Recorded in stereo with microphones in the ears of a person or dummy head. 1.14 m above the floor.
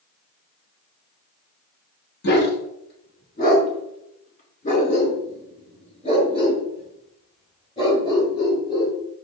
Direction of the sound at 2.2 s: 60° left (ahead or behind).